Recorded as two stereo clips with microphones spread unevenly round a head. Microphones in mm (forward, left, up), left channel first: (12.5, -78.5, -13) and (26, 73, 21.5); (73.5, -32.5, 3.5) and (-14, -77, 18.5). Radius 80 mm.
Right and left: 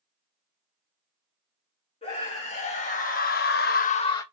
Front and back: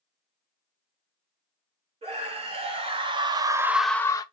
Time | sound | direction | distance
2.0 | a scream | 150° right | 2.0 m